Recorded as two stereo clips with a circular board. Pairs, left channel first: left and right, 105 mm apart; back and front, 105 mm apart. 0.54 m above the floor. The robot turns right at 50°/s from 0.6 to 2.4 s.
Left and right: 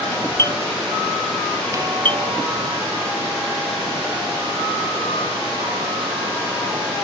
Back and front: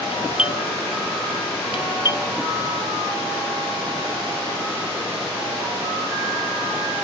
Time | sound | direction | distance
0.1 | a doorbell | 155° left | ?